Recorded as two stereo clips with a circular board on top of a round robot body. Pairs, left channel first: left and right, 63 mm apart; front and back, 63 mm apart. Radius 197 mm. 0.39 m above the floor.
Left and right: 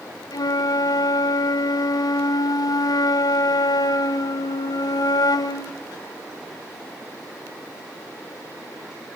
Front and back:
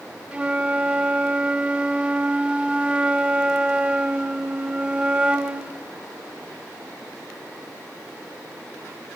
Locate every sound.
0.3 s a flute: 105° left, 1.2 m